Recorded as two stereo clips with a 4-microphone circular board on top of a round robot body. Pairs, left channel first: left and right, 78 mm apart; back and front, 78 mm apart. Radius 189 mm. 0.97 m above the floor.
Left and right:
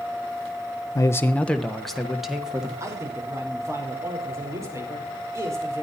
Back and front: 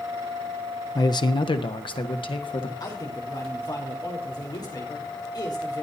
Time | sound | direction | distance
0.9 | a man speaking | 135° left | 0.6 m
2.8 | a man speaking | 145° right | 4.5 m